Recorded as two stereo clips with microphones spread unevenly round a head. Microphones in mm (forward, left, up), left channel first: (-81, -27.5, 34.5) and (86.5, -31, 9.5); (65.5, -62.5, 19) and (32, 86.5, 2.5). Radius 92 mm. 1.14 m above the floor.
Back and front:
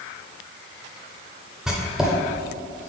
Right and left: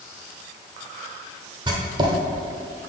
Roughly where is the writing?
Left.